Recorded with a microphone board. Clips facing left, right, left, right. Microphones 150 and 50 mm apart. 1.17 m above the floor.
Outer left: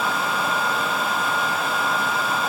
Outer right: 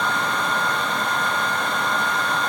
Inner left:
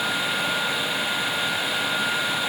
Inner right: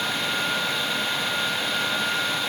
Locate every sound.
Only background noise.